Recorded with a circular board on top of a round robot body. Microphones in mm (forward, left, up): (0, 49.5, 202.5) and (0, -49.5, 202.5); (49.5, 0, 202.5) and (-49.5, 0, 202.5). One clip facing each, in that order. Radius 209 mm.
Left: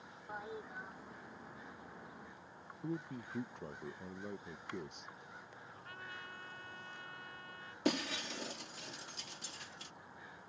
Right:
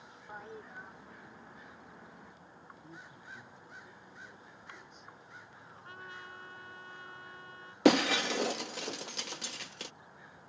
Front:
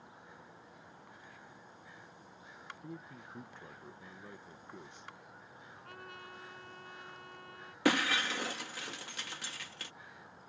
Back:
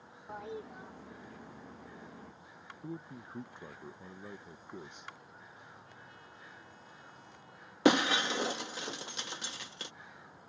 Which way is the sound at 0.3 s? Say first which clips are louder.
Left 1 dB, back 13 dB; 175° left.